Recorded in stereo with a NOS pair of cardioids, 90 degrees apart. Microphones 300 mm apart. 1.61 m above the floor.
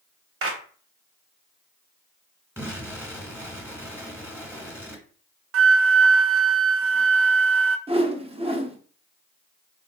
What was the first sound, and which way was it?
A clap, 45° right.